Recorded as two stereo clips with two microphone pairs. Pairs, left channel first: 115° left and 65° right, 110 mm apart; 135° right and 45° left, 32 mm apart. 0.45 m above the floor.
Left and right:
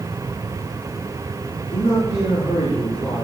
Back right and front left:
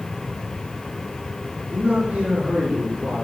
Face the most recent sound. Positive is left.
turn(degrees=40)